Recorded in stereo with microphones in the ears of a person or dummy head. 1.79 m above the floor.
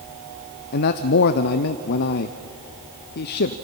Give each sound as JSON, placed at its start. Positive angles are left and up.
{"t": 0.7, "sound": "a man speaking", "side_deg": 55, "distance_m": 0.7}